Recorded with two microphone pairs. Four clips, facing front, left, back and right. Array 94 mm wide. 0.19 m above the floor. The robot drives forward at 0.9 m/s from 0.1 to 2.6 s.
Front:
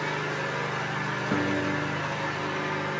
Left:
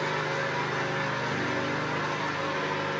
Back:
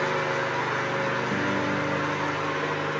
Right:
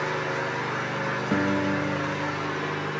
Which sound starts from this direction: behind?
An engine running, at 0.0 s.